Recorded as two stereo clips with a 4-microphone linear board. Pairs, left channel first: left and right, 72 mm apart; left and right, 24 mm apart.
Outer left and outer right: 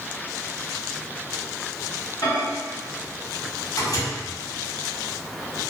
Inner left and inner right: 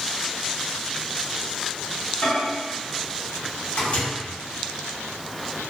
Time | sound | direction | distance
2.2 | a microwave | 55° left (ahead or behind) | 1.1 m